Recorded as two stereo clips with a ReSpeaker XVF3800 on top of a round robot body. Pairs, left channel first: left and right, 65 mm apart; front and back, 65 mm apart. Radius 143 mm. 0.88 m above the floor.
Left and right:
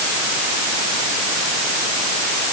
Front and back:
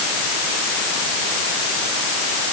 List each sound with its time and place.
Only background noise.